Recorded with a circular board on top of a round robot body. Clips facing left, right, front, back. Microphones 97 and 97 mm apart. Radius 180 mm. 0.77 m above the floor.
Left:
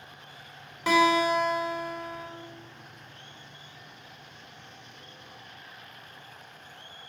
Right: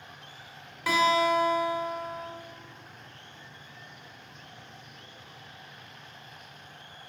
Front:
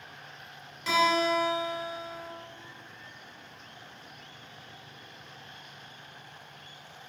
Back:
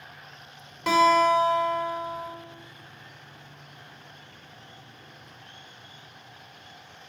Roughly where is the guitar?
Behind left.